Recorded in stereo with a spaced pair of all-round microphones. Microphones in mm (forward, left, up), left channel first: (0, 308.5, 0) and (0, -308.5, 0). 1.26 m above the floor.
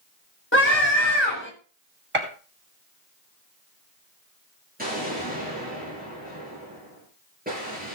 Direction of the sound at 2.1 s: 50° right (ahead or behind).